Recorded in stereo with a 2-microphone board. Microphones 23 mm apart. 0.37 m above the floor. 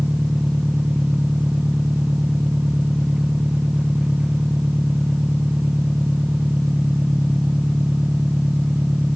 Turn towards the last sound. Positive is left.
turn(degrees=-30)  # may be behind; listen again after turning